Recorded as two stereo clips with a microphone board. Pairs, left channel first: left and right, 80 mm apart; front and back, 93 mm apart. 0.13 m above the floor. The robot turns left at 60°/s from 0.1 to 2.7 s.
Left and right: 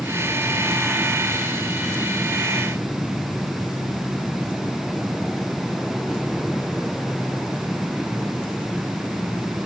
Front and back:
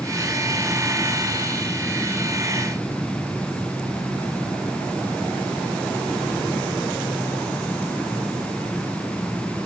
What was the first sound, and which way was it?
Only background noise.